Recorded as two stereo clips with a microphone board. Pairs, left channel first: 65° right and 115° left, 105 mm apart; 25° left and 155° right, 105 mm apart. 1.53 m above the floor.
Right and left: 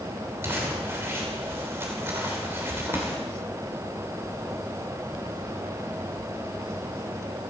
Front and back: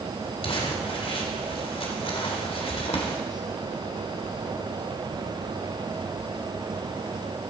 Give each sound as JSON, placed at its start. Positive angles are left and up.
{"t": 0.4, "sound": "crumpling", "azimuth_deg": 45, "distance_m": 2.5}